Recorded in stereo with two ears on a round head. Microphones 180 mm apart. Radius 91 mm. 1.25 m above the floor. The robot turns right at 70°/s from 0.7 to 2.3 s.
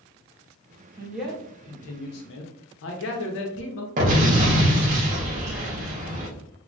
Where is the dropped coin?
I don't hear a dropped coin.